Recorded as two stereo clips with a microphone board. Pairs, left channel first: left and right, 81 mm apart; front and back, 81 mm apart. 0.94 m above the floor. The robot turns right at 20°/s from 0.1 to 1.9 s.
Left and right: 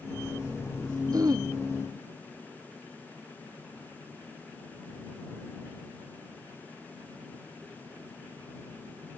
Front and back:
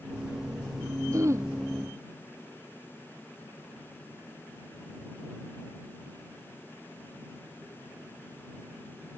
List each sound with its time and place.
1.1 s throat clearing: 130° right; by 1.5 s 125° right